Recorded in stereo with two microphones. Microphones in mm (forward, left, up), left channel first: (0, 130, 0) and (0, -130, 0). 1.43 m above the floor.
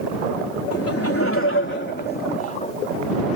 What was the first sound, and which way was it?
Laughter, 65° left (ahead or behind).